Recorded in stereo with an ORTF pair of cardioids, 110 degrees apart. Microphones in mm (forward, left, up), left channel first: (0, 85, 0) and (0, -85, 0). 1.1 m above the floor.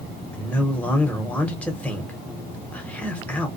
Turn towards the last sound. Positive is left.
turn(degrees=10)